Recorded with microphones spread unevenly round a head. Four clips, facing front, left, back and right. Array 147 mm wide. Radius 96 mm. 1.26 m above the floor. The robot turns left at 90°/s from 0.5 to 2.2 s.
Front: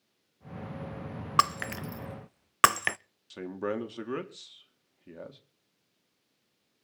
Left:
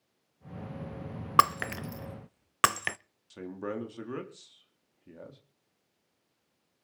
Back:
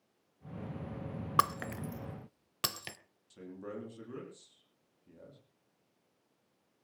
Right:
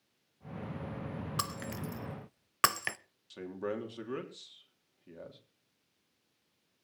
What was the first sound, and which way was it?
Breaking glass, 75° left.